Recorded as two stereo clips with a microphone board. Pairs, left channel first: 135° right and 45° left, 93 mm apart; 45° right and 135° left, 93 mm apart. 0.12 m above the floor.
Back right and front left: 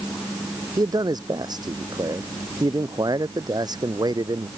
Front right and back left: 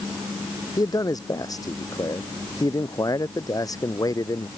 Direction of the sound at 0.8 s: Straight ahead.